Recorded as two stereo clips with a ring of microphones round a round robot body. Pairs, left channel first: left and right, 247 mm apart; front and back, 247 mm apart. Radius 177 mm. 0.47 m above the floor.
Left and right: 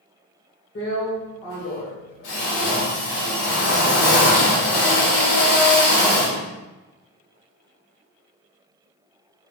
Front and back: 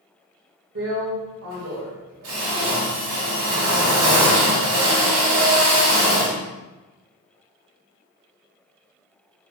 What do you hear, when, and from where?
0.8 s a drill: 135° left, 2.5 m